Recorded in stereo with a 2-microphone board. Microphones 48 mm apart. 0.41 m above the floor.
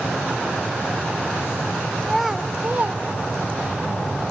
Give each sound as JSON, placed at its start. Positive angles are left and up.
{"t": 2.0, "sound": "a child speaking", "side_deg": 10, "distance_m": 0.9}